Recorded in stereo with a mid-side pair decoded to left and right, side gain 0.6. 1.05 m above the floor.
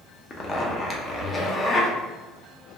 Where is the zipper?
30° left, 0.6 m.